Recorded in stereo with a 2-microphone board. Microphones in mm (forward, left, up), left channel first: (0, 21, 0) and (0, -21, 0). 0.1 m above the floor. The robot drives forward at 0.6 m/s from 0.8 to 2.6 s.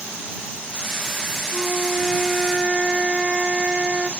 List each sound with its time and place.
1.5 s a flute: 15° right (ahead or behind), 1.3 m; by 4.1 s 20° right (ahead or behind), 0.8 m